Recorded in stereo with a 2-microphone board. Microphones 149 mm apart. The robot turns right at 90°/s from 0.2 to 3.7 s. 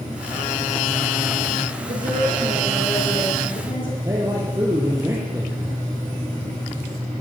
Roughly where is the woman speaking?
Right.